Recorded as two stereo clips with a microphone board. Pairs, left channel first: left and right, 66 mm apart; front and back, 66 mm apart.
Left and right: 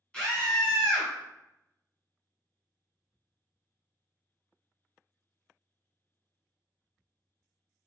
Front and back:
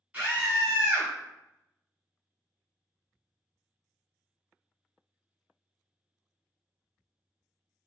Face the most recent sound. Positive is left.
turn(degrees=150)